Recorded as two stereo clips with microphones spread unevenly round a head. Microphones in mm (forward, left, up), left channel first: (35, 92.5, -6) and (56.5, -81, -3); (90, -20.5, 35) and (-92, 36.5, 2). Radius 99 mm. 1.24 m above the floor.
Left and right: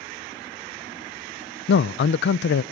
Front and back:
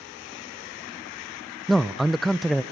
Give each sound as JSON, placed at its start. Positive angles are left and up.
{"t": 1.7, "sound": "a man speaking", "azimuth_deg": 75, "distance_m": 0.5}